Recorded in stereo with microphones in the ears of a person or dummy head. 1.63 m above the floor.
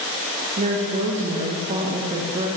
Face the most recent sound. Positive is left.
turn(degrees=-30)  # may be behind; listen again after turning